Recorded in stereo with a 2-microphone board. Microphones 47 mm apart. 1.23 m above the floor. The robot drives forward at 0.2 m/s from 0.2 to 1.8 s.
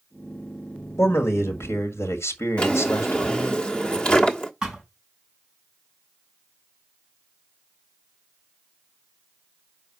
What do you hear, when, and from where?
1.0 s a man speaking: 65° left (ahead or behind), 1.7 m; by 3.6 s 60° left (ahead or behind), 1.8 m
2.6 s a drawer: 20° left (ahead or behind), 1.1 m
4.6 s a thud: 15° right (ahead or behind), 4 m